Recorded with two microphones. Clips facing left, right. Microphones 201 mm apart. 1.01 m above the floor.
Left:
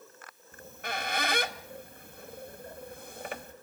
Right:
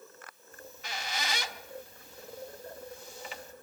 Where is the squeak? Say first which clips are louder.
Left 6 dB; 55° left (ahead or behind), 0.7 m.